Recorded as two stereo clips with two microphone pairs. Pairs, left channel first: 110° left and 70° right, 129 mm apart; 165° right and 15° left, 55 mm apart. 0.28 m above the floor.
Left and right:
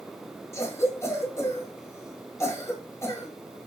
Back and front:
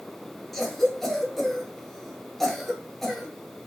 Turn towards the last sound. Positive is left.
turn(degrees=120)